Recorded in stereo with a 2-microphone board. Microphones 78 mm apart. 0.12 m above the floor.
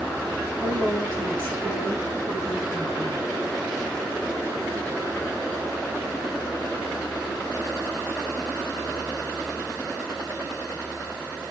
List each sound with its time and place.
0.6 s a woman speaking: 30° right (ahead or behind), 2.5 m